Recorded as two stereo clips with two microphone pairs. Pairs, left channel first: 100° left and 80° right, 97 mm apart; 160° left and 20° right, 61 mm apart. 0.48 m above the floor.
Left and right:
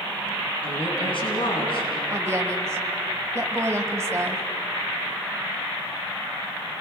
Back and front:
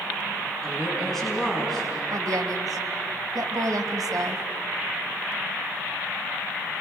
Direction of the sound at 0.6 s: 70° left.